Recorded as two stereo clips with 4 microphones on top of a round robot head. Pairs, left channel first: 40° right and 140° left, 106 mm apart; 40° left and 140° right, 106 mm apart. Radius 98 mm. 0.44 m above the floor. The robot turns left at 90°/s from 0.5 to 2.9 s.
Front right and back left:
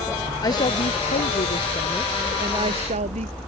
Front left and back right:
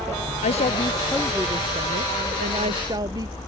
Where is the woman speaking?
20° left; by 3.3 s 160° left.